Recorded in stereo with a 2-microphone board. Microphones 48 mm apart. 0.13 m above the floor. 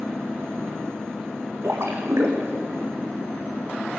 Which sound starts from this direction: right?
A splash, at 1.6 s.